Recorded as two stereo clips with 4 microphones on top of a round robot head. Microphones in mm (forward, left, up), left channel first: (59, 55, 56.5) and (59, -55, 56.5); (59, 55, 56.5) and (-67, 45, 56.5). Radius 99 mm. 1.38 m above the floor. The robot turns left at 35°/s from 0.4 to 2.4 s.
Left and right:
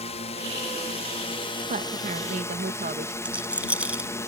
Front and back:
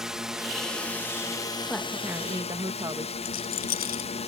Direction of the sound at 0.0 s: 100° left.